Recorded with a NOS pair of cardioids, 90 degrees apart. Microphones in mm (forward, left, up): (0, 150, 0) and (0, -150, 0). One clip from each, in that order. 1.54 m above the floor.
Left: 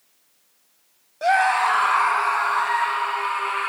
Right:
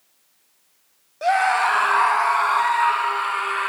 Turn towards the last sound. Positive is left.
turn(degrees=-30)